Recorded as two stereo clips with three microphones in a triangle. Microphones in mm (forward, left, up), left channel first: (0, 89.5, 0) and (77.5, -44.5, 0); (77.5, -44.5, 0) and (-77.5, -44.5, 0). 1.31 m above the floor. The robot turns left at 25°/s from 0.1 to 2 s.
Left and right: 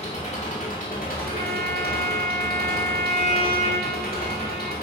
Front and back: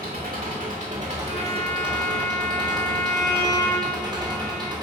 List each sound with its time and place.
0.0 s an engine running: 165° left, 2 m; by 4.8 s 120° left, 2 m
1.3 s a violin: 45° right, 2 m; by 4.7 s 65° right, 2 m